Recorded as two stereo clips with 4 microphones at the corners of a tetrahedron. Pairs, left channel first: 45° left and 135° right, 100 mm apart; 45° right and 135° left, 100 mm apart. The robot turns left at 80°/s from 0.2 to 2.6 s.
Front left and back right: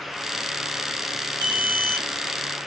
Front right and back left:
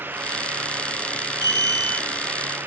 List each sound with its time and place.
1.4 s an alarm: 95° right, 5.5 m; by 2.1 s 150° right, 5.5 m